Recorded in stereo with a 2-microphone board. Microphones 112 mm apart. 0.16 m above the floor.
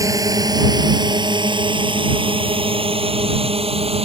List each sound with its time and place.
0.0 s a drone: 30° right (ahead or behind); by 4.0 s 65° right (ahead or behind)